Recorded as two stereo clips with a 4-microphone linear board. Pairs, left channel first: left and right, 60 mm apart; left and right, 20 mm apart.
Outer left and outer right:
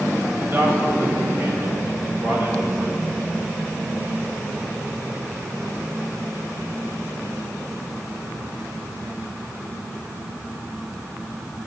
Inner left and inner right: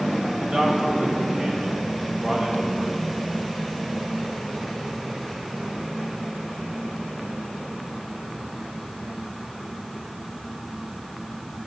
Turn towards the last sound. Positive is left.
turn(degrees=-30)  # may be behind; listen again after turning